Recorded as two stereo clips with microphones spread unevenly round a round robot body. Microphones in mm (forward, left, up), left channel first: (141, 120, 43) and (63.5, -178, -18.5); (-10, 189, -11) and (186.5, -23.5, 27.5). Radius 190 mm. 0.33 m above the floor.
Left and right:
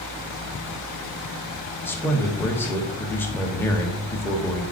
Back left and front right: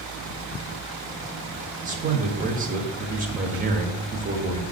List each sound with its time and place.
1.9 s a man speaking: 25° right, 1.0 m